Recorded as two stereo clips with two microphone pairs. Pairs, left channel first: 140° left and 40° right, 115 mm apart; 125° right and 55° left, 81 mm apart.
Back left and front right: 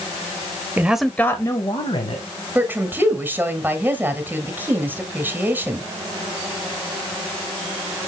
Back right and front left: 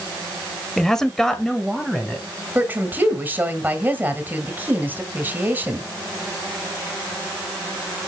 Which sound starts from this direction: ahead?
A woman speaking, at 2.5 s.